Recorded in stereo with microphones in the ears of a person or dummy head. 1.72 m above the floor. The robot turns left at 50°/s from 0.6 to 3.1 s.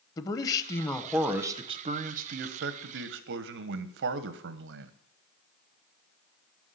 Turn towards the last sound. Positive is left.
turn(degrees=-105)